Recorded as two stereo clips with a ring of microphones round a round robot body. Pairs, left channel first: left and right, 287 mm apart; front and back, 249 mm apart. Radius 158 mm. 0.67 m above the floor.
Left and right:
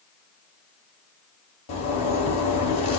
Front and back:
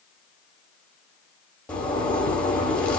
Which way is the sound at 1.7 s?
85° left.